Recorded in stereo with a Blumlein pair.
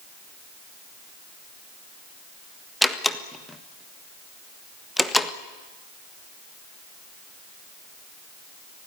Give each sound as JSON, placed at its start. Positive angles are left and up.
{"t": 2.8, "sound": "a door slam", "azimuth_deg": 5, "distance_m": 1.5}